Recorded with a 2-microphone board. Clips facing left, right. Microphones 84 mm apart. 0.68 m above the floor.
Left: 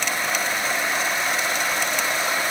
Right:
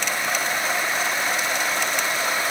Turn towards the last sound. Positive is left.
No sound to turn to.